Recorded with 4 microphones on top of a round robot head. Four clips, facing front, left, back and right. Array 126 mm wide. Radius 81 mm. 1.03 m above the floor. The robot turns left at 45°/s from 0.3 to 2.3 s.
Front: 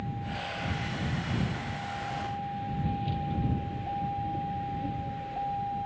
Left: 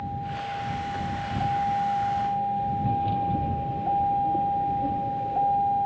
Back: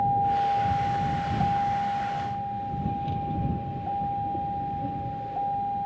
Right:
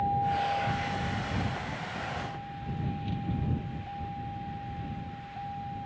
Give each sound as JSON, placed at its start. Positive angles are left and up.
{"t": 0.0, "sound": "a vehicle", "azimuth_deg": -165}